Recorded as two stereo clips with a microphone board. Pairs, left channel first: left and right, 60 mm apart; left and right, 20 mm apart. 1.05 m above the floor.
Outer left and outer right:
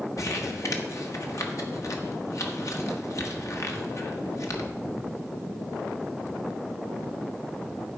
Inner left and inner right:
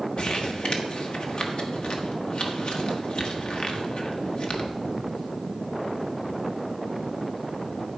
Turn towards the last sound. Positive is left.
turn(degrees=60)  # may be behind; listen again after turning